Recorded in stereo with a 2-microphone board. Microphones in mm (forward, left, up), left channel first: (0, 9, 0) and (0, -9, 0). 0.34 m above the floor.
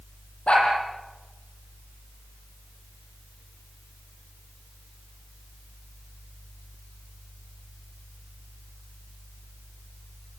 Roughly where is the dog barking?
Left.